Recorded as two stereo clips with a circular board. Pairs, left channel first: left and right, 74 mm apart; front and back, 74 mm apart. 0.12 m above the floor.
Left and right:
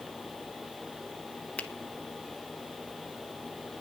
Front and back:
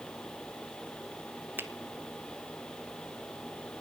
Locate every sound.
1.6 s a finger snap: 145° left, 1.2 m